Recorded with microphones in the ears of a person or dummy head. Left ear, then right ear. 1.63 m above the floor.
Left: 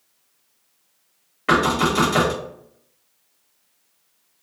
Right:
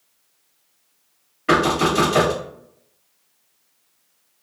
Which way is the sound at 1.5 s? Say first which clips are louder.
Right 1 dB; 20° left (ahead or behind).